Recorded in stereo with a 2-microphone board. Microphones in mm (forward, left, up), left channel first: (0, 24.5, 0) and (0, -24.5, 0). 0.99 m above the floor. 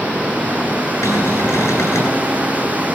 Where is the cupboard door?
70° left (ahead or behind), 9 m.